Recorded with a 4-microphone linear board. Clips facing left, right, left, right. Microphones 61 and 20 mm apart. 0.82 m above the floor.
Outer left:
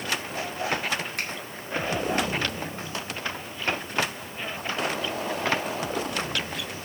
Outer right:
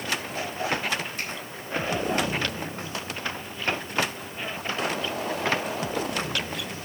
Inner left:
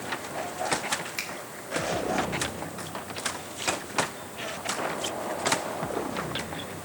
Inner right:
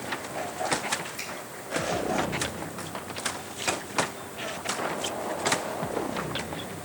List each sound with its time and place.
1.2 s a finger snap: 65° left (ahead or behind), 1.6 m